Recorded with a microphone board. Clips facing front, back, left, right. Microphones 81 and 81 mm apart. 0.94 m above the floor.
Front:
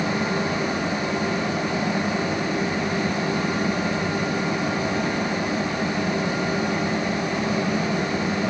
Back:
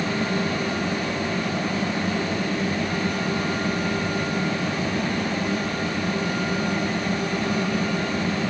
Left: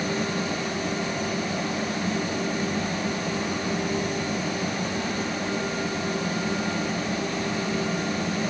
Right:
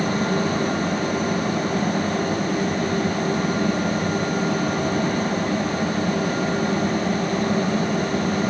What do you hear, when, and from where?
Only background noise.